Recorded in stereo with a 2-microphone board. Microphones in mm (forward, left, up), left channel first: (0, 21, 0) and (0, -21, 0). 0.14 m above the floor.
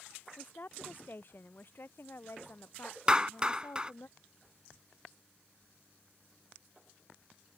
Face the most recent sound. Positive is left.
turn(degrees=-20)  # may be behind; listen again after turning